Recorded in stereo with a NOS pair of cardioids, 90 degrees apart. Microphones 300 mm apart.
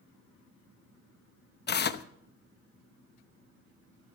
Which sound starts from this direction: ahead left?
Tearing paper, at 1.7 s.